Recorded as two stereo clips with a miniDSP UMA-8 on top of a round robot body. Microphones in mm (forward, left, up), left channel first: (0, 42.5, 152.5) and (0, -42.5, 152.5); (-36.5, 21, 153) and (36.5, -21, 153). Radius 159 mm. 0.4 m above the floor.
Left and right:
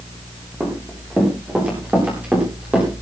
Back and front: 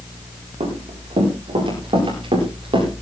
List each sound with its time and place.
0.6 s running footsteps: 20° right, 8 m; by 2.9 s 15° right, 9.5 m